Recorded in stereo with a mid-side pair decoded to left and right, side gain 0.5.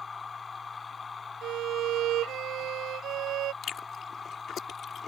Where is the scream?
No scream in this recording.